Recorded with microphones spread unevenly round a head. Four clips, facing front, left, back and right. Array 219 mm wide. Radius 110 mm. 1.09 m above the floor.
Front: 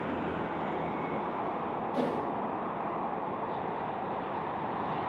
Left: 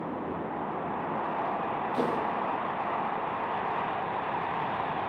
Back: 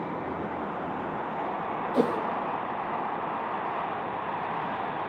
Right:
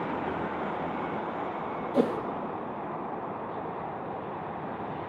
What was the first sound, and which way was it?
A whoosh, 130° right.